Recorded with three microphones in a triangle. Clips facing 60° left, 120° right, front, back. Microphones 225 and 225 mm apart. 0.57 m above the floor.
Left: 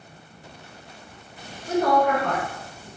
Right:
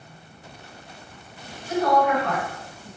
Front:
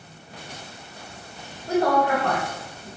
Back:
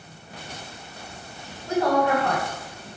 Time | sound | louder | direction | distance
1.7 | a woman speaking | left 1 dB, even | 50° left | 1.3 m